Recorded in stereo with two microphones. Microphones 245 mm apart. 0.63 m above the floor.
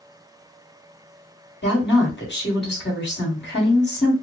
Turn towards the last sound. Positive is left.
turn(degrees=45)  # may be behind; listen again after turning